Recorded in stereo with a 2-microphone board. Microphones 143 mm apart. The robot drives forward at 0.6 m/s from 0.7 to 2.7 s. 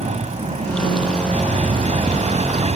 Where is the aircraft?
50° right (ahead or behind).